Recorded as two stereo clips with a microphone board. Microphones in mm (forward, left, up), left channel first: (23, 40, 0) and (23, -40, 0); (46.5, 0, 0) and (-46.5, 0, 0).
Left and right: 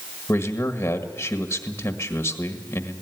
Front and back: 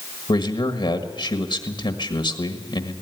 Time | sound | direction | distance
0.3 | a man speaking | 30° left | 1.6 m